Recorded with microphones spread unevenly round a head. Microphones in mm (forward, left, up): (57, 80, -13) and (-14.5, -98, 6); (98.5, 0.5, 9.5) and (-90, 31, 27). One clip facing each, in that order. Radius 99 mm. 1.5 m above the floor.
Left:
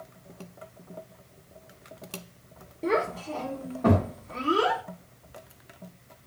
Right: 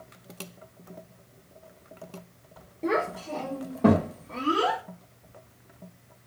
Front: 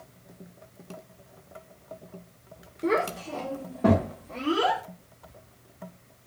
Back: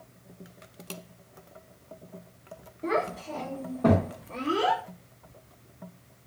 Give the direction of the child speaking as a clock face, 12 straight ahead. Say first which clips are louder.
Left 1 dB, front 3 dB; 1 o'clock.